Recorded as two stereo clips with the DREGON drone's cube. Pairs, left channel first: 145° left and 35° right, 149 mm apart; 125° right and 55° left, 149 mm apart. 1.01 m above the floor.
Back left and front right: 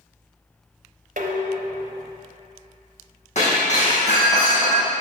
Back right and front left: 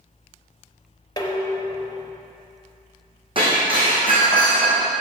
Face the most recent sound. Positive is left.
turn(degrees=110)